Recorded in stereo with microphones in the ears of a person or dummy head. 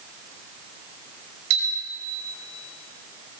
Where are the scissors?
No scissors in this recording.